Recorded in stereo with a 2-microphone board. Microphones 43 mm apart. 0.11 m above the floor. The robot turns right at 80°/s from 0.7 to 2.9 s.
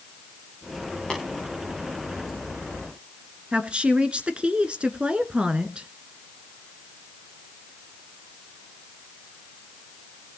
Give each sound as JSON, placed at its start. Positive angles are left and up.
{"t": 1.1, "sound": "tapping", "side_deg": 10, "distance_m": 8.0}
{"t": 3.5, "sound": "a woman speaking", "side_deg": -25, "distance_m": 1.2}